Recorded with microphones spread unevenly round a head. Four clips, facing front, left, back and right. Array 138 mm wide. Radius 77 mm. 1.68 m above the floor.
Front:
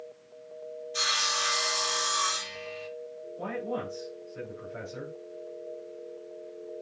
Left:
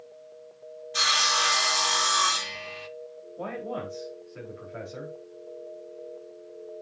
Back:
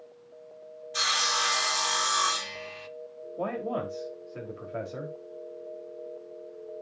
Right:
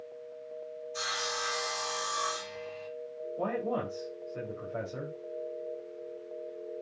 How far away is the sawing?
About 1.3 m.